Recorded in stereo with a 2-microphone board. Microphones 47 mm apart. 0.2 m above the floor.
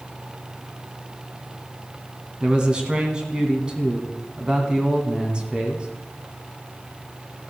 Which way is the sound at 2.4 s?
20° right (ahead or behind).